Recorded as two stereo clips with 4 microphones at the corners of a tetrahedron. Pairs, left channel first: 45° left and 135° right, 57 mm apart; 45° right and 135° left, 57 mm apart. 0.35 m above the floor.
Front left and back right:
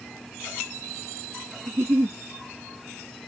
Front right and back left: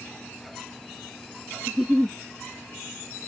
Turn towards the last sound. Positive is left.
turn(degrees=-140)